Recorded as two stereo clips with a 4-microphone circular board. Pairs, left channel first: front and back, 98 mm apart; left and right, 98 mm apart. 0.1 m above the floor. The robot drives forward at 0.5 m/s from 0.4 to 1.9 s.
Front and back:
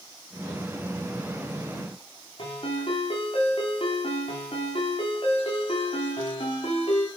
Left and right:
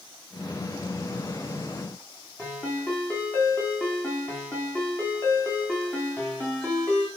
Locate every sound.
2.4 s a ringtone: 20° left, 5 m